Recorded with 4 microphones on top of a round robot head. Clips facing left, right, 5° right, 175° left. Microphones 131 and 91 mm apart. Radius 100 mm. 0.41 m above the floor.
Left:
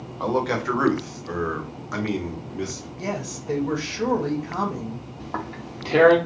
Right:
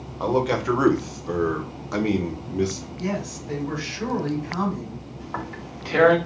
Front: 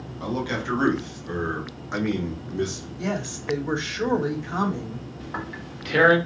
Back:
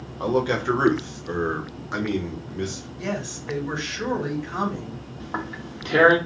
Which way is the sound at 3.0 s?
60° left.